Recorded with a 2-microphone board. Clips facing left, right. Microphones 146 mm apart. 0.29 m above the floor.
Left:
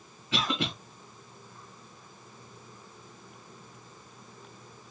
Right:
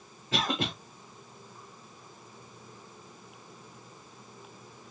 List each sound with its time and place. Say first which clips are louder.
0.3 s a cough: even; 40° right (ahead or behind), 1.3 m